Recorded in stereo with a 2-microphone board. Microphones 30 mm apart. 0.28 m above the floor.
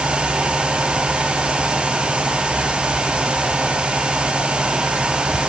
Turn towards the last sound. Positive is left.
No sound to turn to.